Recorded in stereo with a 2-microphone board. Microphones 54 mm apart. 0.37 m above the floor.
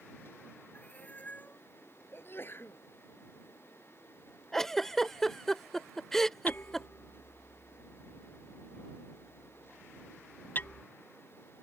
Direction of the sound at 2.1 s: 45° left (ahead or behind).